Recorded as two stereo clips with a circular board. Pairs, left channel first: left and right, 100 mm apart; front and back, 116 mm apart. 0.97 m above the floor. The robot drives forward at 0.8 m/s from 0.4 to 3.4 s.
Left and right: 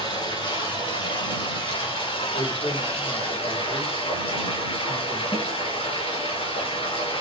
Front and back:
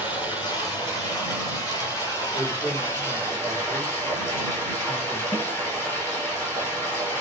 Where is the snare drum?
70° left, 7 m.